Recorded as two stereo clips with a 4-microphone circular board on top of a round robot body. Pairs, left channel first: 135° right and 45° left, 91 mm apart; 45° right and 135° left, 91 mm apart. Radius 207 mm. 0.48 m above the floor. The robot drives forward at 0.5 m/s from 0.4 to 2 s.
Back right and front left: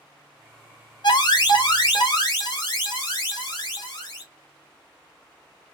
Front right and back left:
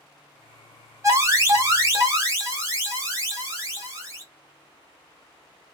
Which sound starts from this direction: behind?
An alarm, at 1.0 s.